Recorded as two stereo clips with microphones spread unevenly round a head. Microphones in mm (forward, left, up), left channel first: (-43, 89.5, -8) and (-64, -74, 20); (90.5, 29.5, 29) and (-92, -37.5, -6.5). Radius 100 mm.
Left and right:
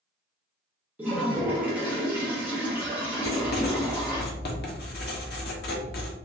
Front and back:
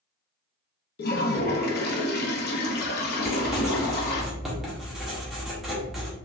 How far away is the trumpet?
I don't hear a trumpet.